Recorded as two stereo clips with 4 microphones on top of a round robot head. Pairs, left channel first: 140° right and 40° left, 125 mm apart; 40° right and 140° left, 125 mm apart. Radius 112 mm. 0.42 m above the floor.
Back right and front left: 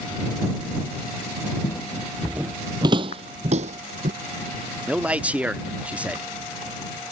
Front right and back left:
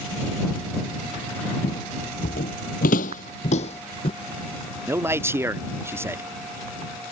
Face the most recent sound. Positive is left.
turn(degrees=105)